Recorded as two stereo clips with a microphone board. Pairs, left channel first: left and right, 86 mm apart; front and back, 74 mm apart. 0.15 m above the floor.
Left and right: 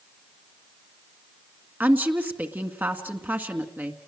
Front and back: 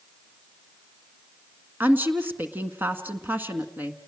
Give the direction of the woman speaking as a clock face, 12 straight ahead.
5 o'clock.